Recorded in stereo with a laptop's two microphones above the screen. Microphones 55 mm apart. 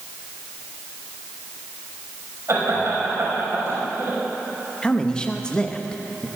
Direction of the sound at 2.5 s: 55° right (ahead or behind).